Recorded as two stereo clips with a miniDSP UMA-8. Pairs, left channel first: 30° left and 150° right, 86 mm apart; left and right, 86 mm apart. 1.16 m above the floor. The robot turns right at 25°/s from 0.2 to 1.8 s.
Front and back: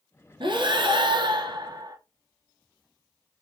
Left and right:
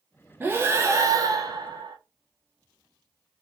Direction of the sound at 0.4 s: 155° right.